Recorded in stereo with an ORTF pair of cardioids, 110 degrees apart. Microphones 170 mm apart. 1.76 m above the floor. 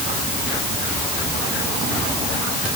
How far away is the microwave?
I don't hear a microwave.